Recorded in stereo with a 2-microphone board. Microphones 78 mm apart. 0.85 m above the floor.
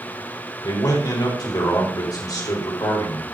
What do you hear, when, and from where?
0.6 s a man speaking: 55° left (ahead or behind), 4 m